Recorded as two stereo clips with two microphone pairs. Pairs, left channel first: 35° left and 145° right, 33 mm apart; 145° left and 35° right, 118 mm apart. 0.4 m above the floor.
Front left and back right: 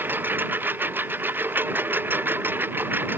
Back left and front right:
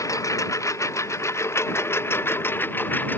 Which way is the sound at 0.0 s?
155° right.